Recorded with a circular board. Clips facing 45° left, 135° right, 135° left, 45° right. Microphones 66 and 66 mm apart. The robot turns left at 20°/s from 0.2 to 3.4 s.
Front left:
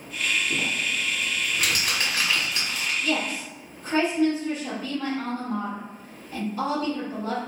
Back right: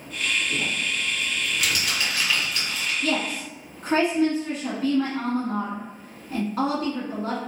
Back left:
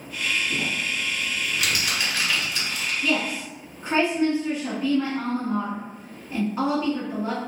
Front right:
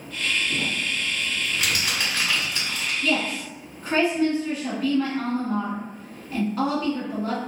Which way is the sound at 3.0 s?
135° right.